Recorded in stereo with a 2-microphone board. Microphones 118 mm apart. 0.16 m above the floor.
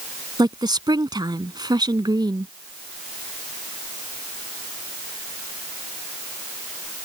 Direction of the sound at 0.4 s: 35° right (ahead or behind).